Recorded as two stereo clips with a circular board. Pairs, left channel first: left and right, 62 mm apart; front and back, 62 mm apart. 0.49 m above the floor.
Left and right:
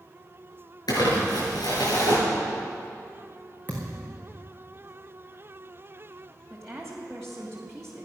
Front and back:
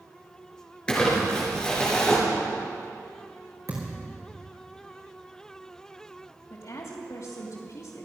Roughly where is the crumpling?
Left.